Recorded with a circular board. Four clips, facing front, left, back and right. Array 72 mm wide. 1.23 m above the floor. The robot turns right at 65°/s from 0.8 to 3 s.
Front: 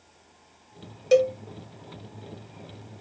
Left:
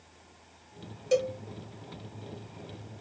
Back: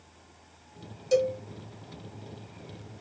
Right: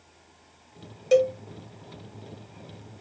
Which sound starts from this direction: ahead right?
A cowbell, at 1.1 s.